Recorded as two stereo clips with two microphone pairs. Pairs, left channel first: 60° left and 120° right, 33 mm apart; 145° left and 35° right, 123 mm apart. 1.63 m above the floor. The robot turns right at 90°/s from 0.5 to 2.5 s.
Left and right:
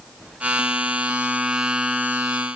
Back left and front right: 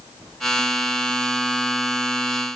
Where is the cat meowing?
I don't hear a cat meowing.